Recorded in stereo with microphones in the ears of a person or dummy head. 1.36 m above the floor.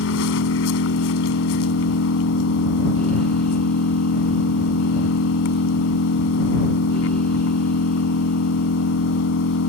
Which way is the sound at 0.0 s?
65° left (ahead or behind).